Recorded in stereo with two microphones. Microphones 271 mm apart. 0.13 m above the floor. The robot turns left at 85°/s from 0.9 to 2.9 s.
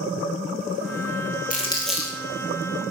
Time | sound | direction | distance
1.5 | crumpling | 30° left (ahead or behind) | 1.8 m